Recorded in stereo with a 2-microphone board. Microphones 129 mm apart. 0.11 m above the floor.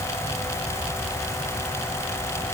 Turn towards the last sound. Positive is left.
No sound to turn to.